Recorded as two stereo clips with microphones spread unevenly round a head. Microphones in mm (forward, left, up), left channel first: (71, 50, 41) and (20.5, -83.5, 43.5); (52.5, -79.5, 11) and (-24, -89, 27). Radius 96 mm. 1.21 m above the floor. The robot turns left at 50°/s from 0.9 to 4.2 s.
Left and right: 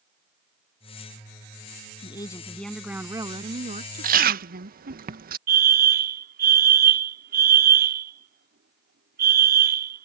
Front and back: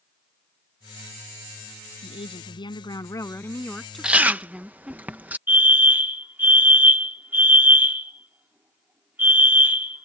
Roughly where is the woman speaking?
Ahead.